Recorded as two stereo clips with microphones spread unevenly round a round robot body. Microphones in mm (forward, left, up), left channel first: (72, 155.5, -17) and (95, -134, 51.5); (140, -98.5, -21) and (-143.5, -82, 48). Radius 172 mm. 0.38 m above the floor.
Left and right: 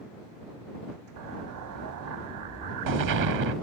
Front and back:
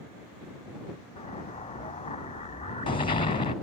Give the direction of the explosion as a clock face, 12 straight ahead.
2 o'clock.